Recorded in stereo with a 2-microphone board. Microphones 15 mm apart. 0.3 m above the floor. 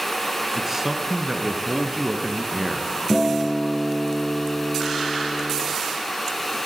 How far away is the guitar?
About 7.5 m.